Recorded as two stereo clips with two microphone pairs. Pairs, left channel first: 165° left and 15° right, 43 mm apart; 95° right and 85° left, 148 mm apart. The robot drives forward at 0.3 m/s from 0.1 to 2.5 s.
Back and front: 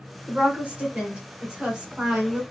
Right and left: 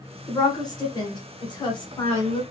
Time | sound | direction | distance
0.3 | a woman speaking | 50° right | 1.9 m